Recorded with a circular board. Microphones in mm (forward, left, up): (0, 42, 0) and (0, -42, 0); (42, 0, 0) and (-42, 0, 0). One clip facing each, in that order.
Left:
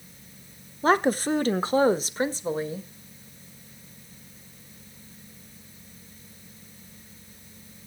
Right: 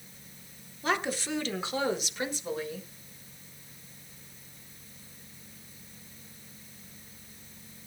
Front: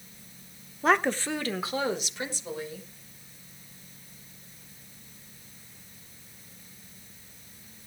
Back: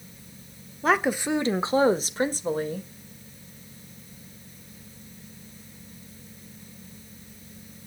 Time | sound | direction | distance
0.8 | a woman speaking | 85° left | 0.9 m